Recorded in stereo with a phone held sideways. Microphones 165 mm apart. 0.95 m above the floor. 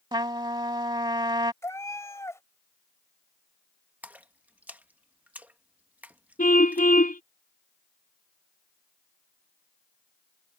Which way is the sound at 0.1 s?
25° right (ahead or behind).